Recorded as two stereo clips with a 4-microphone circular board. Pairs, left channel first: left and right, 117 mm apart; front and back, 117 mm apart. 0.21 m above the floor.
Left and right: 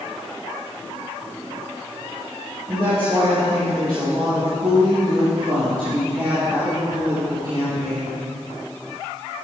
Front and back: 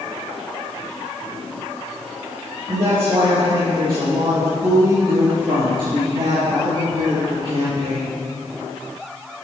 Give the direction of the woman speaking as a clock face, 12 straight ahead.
5 o'clock.